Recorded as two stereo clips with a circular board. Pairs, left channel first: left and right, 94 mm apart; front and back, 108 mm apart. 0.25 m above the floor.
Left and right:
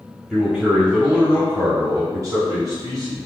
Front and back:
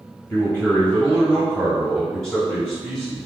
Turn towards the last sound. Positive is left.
turn(degrees=-90)